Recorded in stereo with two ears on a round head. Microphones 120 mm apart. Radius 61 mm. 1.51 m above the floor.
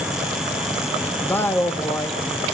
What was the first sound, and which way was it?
A man speaking, 15° left (ahead or behind).